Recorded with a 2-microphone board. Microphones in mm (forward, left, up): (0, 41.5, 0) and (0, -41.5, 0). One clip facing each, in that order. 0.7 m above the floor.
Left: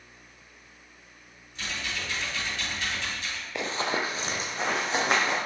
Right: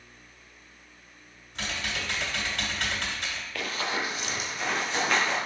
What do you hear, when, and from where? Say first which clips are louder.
1.6 s typing on a keyboard: right 1 dB; 75° right (ahead or behind), 2 m
3.5 s running footsteps: left 3 dB; 20° left (ahead or behind), 0.8 m; by 5.4 s 35° left (ahead or behind), 3.5 m